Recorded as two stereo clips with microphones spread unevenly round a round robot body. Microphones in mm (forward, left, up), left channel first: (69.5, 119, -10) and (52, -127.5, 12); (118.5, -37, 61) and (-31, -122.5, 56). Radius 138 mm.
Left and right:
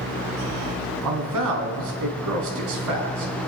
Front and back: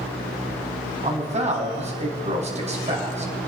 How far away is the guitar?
No guitar in this recording.